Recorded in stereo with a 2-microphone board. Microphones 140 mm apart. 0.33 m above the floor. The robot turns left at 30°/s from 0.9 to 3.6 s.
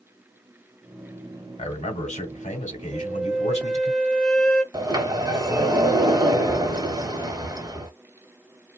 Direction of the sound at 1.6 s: 125° left.